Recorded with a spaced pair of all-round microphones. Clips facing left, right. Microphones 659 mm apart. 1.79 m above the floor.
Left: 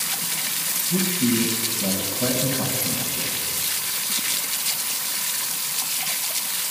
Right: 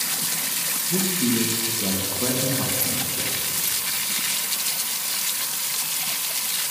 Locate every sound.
0.9 s a man speaking: 15° left (ahead or behind), 1.7 m